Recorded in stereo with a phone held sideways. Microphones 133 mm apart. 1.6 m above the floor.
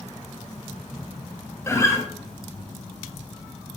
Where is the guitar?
20° left (ahead or behind), 1.1 m.